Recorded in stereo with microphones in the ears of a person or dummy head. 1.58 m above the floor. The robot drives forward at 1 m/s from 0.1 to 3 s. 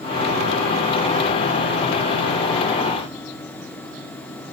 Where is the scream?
I don't hear a scream.